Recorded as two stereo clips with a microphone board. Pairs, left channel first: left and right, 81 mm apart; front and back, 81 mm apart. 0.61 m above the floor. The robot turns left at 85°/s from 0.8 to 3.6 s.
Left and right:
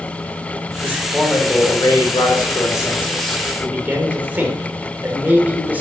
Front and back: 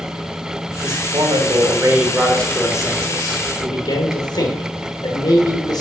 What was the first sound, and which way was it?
A man speaking, 150° right.